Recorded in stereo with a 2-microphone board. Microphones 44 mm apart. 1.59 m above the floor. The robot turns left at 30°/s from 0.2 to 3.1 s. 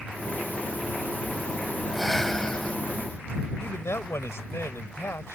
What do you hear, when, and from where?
1.9 s breathing: centre (ahead or behind); by 2.8 s 25° left (ahead or behind)
3.6 s a man speaking: 85° left